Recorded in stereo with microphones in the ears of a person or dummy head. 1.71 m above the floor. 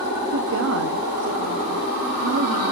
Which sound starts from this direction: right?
A woman speaking, at 0.3 s.